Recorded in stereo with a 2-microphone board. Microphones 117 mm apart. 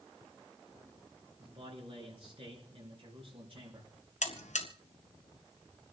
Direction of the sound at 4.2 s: 85° left.